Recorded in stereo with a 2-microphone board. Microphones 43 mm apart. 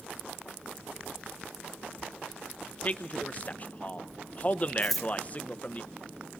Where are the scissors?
Centre (ahead or behind), 1.0 m.